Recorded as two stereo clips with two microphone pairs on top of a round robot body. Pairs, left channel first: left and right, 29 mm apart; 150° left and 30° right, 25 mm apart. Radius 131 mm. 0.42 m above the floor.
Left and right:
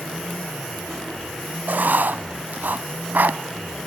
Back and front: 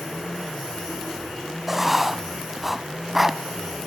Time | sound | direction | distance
1.7 | writing | 110° right | 0.7 m